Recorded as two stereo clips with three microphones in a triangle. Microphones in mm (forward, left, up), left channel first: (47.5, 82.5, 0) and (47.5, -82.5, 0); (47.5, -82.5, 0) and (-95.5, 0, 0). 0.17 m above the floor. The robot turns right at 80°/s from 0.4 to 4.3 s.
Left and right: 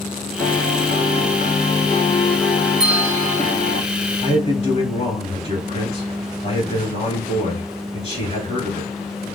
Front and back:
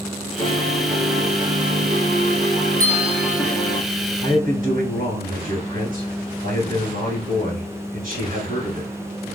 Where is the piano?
5° left, 1.6 m; by 3.8 s 80° right, 1.6 m.